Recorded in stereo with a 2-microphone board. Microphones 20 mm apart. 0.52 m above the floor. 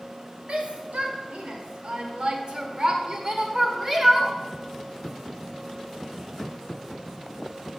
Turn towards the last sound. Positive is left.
turn(degrees=-20)  # may be behind; listen again after turning